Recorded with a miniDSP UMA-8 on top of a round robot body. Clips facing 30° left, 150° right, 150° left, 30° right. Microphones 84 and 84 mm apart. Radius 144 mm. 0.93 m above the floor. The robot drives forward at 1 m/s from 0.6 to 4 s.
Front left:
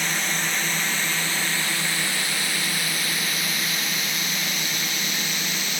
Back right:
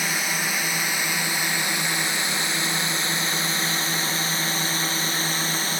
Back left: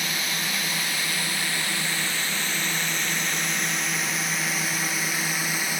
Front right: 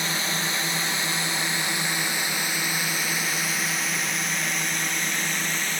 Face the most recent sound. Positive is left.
turn(degrees=-135)